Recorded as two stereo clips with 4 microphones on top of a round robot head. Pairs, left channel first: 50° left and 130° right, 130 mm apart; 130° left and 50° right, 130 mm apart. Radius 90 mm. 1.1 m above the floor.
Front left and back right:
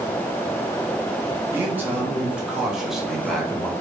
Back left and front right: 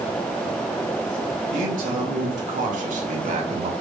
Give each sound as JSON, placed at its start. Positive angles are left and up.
{"t": 1.5, "sound": "a man speaking", "azimuth_deg": -55, "distance_m": 3.0}